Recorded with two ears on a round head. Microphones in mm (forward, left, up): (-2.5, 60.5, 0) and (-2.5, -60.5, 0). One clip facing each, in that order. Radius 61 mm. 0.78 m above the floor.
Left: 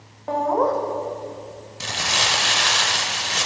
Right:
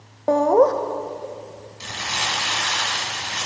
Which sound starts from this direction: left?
Crumpling, at 1.8 s.